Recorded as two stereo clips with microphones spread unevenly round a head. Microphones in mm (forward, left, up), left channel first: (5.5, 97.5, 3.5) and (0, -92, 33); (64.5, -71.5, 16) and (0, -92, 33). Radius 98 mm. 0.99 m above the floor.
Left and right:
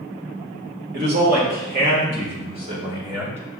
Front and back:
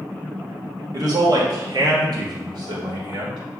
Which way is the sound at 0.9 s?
130° right.